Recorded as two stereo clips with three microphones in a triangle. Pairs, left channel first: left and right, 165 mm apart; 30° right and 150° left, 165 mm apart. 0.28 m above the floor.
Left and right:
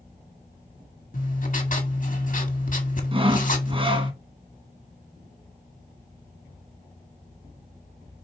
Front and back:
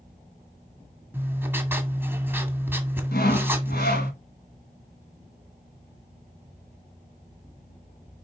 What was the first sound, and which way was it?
Writing, 75° left.